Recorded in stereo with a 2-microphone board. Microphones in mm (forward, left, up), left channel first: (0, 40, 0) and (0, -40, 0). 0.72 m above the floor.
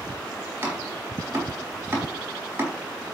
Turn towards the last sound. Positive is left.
turn(degrees=-25)  # may be behind; listen again after turning